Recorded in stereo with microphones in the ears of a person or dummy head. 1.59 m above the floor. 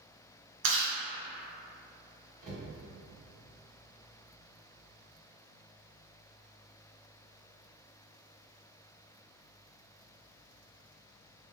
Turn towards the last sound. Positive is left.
turn(degrees=-40)  # may be behind; listen again after turning